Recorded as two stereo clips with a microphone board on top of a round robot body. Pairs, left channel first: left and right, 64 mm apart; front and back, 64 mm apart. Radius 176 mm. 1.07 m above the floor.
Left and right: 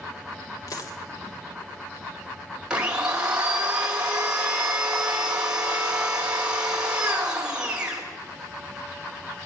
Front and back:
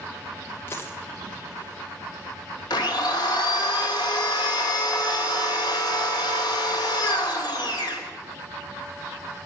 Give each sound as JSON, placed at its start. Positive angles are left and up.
{"t": 0.7, "sound": "a dropped coin", "azimuth_deg": 55, "distance_m": 1.7}
{"t": 2.7, "sound": "a blender", "azimuth_deg": -15, "distance_m": 2.5}